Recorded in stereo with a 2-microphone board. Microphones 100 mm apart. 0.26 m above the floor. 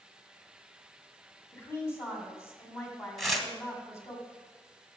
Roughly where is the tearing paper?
Centre.